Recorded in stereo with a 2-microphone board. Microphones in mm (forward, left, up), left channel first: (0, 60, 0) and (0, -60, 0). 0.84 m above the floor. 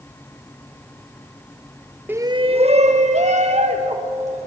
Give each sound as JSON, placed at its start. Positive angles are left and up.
{"t": 2.1, "sound": "a shout", "side_deg": -15, "distance_m": 0.6}